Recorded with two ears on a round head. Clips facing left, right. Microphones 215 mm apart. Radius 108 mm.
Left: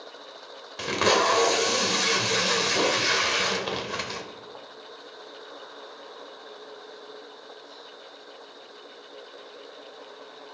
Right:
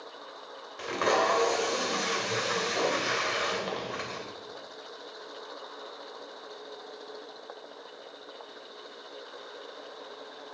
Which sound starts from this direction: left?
Tape being pulled, at 0.8 s.